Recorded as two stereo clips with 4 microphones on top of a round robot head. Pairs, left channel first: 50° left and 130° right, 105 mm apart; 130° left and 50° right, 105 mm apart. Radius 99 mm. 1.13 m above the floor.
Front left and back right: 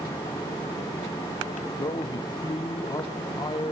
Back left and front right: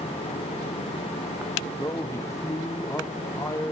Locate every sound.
1.8 s a man speaking: 80° left, 0.8 m